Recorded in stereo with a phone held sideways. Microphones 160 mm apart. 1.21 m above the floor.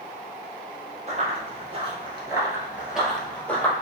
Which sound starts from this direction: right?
Running footsteps, at 1.1 s.